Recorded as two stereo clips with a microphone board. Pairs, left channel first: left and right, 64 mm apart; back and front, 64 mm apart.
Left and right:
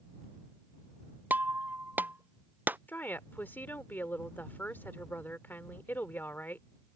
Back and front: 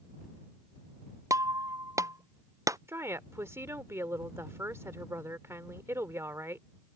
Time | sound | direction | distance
1.3 | breaking glass | 30° right | ?
2.9 | a woman speaking | 35° left | ?